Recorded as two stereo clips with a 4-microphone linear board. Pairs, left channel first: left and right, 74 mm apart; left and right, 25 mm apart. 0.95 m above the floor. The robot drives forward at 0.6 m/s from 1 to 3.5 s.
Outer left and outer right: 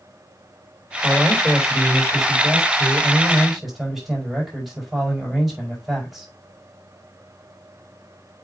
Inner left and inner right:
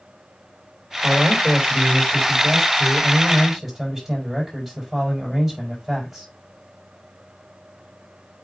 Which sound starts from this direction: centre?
A man speaking, at 1.0 s.